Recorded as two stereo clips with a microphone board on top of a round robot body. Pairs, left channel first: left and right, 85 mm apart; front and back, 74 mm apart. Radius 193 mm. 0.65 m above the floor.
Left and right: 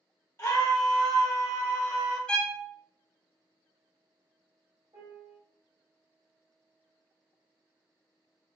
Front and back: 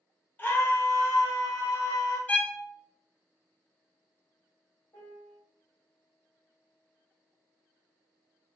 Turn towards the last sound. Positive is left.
turn(degrees=-50)